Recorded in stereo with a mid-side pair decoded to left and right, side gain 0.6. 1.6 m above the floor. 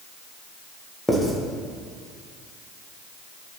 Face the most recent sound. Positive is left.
turn(degrees=5)